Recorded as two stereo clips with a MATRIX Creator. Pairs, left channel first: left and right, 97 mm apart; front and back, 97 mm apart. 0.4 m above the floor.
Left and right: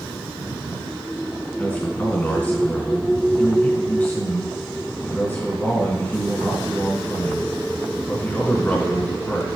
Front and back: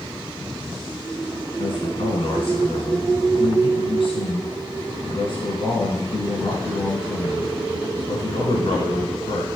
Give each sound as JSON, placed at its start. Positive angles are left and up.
{"t": 1.6, "sound": "a man speaking", "azimuth_deg": 15, "distance_m": 3.0}